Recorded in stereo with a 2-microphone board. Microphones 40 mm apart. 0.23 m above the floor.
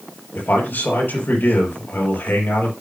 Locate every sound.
0.3 s a man speaking: 65° left (ahead or behind), 5.5 m